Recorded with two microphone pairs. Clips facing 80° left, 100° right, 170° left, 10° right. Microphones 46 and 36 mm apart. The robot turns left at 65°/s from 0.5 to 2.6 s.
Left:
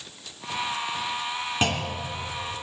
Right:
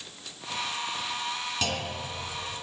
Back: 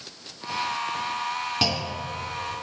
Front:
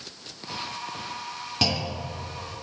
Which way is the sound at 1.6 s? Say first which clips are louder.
Left 7 dB, back 1 dB; 90° left.